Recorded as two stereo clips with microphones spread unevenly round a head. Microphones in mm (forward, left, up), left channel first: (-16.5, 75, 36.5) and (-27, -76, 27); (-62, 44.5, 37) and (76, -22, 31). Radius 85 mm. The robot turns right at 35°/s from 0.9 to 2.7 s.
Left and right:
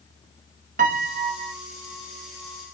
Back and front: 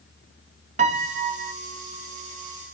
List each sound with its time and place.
0.8 s a piano: 65° right, 0.6 m; by 1.5 s 40° right, 0.6 m